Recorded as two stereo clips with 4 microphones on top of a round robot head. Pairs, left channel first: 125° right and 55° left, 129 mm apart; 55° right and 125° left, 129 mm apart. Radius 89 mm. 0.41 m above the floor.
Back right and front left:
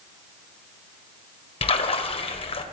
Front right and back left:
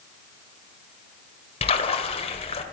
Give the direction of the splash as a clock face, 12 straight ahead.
3 o'clock.